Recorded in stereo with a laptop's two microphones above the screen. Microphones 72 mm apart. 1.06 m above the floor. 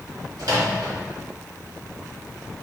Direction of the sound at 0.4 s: 65° right (ahead or behind).